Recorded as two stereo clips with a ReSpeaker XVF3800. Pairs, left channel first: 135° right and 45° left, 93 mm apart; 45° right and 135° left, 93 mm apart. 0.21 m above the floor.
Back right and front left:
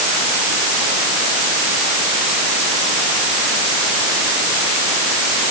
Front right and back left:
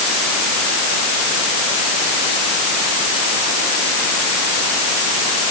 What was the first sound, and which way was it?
Only background noise.